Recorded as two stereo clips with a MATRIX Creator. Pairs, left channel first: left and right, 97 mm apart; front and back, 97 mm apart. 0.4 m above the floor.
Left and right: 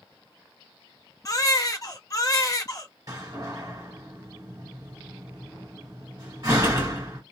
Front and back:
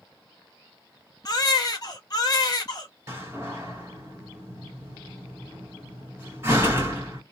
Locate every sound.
1.2 s a baby crying: 40° left, 0.6 m
3.1 s a door slam: 125° right, 1.4 m